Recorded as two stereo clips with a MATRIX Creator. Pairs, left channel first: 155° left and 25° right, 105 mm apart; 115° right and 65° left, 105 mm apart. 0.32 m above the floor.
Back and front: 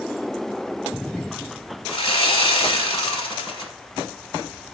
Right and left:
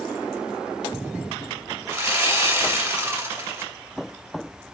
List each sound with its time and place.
1.9 s sawing: 125° left, 1.1 m